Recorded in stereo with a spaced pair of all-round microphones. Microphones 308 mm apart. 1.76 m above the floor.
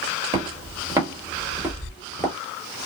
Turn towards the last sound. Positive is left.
turn(degrees=10)  # may be behind; listen again after turning